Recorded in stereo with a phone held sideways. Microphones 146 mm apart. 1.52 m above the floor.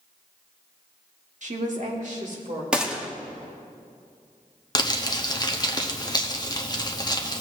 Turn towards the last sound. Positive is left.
turn(degrees=30)  # may be behind; listen again after turning